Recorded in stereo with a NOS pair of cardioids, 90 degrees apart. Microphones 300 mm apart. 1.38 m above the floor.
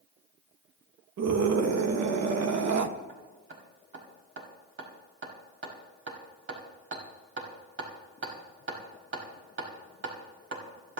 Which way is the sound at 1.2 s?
60° right.